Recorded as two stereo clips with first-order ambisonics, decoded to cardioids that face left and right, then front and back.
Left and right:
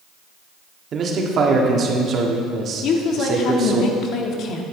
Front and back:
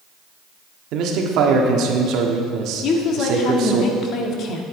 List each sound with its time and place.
0.9 s a man speaking: 145° right, 1.3 m
2.8 s a woman speaking: 45° left, 1.2 m